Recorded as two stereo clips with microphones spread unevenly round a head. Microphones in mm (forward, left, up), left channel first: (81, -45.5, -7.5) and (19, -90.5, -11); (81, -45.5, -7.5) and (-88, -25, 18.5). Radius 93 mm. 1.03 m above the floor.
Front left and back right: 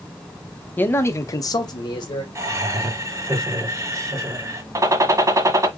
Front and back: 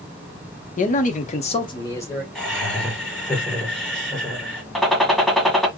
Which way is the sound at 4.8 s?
100° right.